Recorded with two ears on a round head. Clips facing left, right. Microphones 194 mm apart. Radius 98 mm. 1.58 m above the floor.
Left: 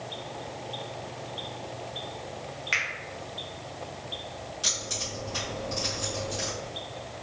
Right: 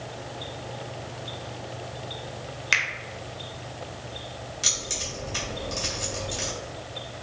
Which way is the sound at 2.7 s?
55° right (ahead or behind).